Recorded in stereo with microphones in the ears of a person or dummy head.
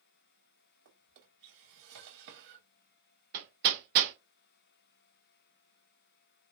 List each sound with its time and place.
0.8 s a drawer: 65° right (ahead or behind), 1.8 m
3.3 s hammering: 50° right (ahead or behind), 1.3 m